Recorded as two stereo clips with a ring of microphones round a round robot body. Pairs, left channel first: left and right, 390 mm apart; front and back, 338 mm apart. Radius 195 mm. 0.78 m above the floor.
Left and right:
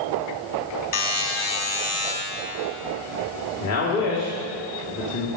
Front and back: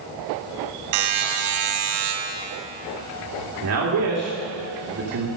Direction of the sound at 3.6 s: 140° left.